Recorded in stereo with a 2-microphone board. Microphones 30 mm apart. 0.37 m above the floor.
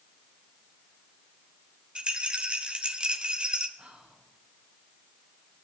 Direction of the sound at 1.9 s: 35° right (ahead or behind).